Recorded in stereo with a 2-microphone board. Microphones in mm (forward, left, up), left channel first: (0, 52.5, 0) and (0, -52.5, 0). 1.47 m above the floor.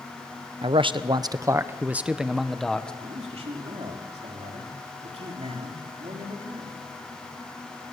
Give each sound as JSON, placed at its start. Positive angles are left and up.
{"t": 0.6, "sound": "a man speaking", "side_deg": -60, "distance_m": 1.0}
{"t": 3.0, "sound": "a man speaking", "side_deg": -70, "distance_m": 3.5}